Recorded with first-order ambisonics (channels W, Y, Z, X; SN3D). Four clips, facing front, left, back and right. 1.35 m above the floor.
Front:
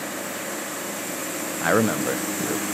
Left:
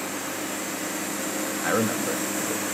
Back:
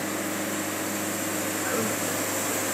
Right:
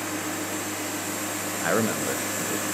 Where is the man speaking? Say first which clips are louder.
Even, front 11 dB; 5° right, 0.6 m.